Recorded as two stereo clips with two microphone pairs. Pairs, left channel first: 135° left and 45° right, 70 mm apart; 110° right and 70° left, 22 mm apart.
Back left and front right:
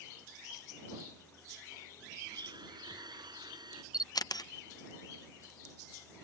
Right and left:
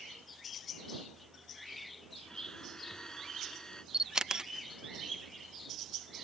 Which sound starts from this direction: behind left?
A camera shutter, at 3.9 s.